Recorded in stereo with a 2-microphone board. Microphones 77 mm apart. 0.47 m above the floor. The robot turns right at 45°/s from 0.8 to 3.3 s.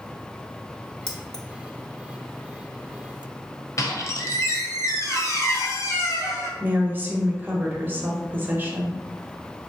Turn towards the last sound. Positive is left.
turn(degrees=-25)  # may be behind; listen again after turning